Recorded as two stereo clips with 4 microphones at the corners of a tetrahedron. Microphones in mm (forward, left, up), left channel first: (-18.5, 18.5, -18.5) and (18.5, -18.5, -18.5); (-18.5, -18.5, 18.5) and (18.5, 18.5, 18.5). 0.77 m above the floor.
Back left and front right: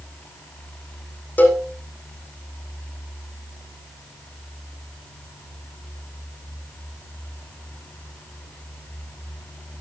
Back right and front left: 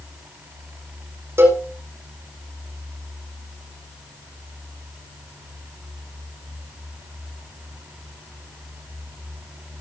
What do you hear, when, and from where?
1.4 s a cowbell: 80° left, 5.5 m